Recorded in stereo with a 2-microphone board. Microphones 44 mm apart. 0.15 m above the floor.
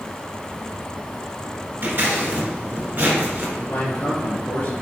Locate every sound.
1.8 s scissors: 55° right (ahead or behind), 1.2 m
3.6 s a man speaking: 60° left (ahead or behind), 1.9 m